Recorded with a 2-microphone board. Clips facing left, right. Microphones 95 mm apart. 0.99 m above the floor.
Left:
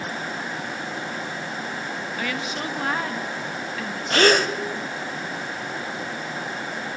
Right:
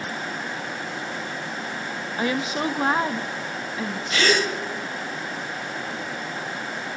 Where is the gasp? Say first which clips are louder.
Left 4 dB; 55° left (ahead or behind), 1.5 m.